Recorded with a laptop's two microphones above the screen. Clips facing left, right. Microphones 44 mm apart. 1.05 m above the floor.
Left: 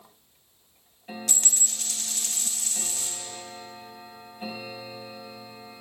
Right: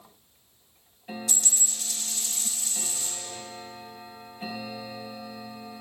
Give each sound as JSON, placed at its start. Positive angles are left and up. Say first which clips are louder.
{"t": 1.3, "sound": "a dropped coin", "louder": "left 2 dB", "side_deg": 60, "distance_m": 1.0}